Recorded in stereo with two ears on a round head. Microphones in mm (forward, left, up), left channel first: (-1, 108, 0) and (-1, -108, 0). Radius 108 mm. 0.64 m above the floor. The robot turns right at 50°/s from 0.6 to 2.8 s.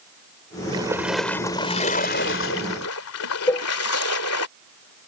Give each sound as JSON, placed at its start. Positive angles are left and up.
{"t": 0.7, "sound": "a splash", "azimuth_deg": -20}
{"t": 3.5, "sound": "a cowbell", "side_deg": 10}